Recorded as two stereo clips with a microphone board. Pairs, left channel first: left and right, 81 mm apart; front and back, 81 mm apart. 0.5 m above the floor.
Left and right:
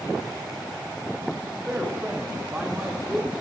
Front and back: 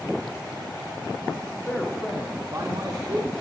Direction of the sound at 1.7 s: 30° right.